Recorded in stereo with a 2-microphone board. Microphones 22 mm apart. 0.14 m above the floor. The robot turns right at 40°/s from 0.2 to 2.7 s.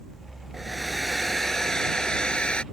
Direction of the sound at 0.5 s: 15° right.